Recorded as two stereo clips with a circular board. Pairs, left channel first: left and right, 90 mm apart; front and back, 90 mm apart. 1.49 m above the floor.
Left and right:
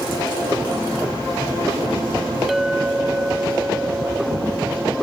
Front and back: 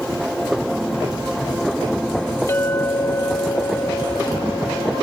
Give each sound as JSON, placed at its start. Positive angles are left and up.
{"t": 2.5, "sound": "a clink", "azimuth_deg": -5, "distance_m": 0.7}